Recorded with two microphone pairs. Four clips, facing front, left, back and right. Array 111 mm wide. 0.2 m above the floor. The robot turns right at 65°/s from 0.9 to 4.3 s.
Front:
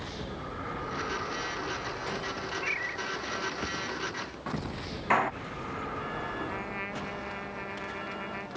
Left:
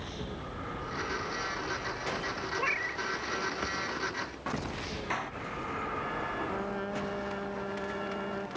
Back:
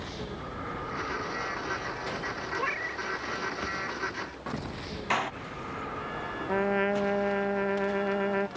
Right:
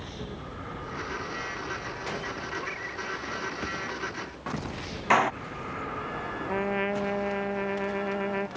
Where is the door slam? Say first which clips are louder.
Right 15 dB, front 4 dB; 70° right.